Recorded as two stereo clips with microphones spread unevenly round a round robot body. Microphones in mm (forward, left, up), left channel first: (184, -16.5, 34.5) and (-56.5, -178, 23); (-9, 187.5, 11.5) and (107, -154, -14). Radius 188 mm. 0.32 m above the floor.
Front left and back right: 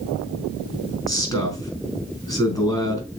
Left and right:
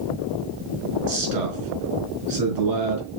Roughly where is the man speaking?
Ahead right.